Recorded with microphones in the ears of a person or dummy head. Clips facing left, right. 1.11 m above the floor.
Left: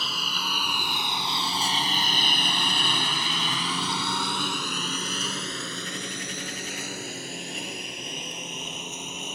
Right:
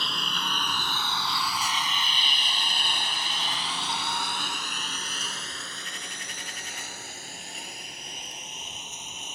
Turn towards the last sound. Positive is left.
turn(degrees=50)  # may be behind; listen again after turning